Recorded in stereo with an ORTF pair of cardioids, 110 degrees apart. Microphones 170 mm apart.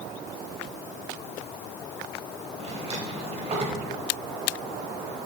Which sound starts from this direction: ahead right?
A drawer, at 2.6 s.